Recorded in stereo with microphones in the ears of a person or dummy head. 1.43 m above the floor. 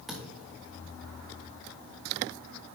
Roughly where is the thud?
Centre.